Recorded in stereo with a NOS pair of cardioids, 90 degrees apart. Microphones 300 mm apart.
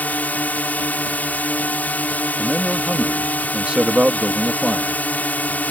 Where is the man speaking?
Straight ahead.